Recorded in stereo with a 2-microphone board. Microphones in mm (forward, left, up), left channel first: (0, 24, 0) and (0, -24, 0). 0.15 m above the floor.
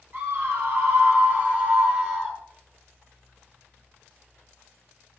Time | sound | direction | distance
0.1 | a scream | 45° right (ahead or behind) | 5 m